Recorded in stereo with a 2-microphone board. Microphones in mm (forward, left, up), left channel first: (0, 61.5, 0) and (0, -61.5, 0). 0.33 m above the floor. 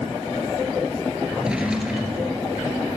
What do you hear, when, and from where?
1.3 s a drawer: 5° right (ahead or behind), 2.5 m